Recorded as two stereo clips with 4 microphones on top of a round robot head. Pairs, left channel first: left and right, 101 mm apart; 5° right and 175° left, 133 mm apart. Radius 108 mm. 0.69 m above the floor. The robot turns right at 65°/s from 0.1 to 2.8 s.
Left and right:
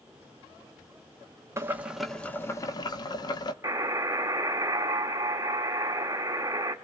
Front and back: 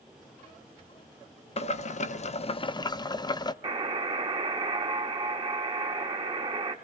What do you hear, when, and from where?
1.6 s boiling: 30° right, 0.9 m; by 3.5 s 50° left, 0.9 m
3.6 s a buzzer: 140° right, 1.6 m